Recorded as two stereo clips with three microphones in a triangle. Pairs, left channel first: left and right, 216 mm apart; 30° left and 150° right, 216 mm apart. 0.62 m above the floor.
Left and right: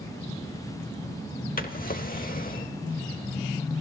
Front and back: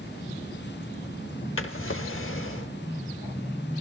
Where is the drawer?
45° left, 0.7 m.